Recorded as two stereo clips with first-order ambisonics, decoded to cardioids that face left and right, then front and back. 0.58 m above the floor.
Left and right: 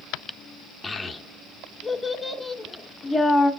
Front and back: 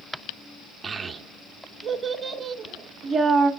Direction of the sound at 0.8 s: 160° left.